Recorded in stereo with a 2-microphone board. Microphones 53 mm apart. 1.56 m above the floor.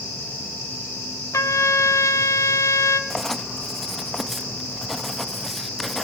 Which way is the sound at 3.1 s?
5° left (ahead or behind).